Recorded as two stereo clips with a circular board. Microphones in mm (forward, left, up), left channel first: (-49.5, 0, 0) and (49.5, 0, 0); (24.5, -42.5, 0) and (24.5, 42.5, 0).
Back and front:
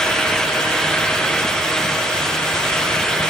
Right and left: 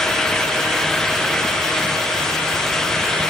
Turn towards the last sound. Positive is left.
No sound to turn to.